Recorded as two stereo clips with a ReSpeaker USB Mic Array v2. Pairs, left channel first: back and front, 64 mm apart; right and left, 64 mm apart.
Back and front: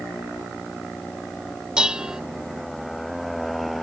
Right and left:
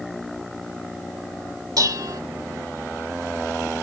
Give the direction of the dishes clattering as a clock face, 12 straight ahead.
9 o'clock.